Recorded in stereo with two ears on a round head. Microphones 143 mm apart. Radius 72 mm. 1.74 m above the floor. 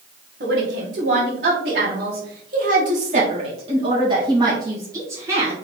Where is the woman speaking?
75° right (ahead or behind), 1.9 m; by 5.5 s 15° right (ahead or behind), 2.5 m.